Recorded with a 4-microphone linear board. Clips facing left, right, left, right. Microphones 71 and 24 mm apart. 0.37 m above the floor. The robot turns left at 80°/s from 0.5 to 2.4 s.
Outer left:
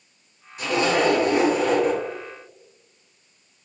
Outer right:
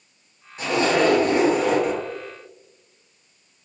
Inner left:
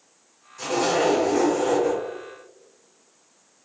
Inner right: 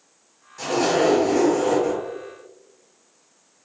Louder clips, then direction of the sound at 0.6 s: Outer right 1 dB, inner right 2 dB; 60° right.